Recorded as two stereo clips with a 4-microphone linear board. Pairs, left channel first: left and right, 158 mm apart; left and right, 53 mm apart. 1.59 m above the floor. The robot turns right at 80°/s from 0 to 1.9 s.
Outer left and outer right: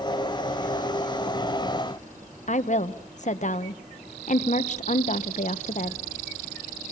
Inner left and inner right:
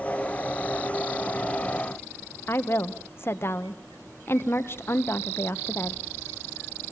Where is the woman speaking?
50° left (ahead or behind), 1.4 m.